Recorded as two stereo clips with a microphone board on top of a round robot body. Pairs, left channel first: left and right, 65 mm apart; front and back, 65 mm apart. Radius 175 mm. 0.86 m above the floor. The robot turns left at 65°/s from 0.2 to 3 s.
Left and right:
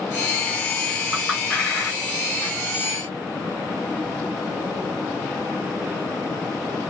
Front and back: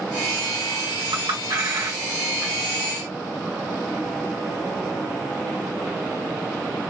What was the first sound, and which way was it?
A clink, 170° right.